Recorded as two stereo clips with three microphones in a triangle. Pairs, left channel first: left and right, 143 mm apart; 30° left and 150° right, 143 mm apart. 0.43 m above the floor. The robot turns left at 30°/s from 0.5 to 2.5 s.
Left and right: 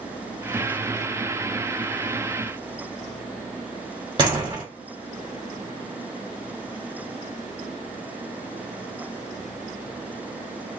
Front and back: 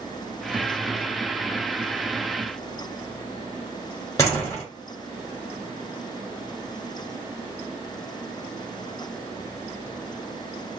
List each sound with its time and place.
4.2 s a door slam: 35° right, 1.4 m